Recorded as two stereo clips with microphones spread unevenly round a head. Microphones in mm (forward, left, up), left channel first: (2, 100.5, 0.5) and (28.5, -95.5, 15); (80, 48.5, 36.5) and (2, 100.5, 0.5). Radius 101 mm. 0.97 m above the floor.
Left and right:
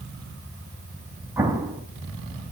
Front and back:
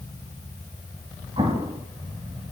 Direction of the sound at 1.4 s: 150° right.